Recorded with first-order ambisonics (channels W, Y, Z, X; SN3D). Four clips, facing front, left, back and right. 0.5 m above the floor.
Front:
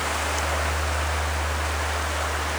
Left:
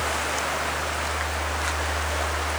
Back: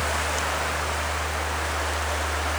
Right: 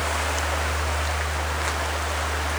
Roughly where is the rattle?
No rattle in this recording.